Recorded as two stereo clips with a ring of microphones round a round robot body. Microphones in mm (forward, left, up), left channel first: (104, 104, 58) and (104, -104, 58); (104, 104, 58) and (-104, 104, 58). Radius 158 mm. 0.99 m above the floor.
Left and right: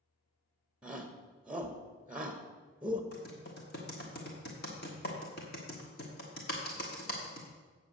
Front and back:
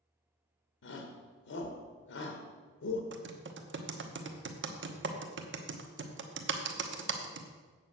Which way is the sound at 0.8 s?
5° right.